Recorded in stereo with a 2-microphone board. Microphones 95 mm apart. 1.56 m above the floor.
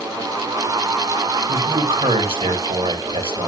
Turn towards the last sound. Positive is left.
turn(degrees=-70)  # may be behind; listen again after turning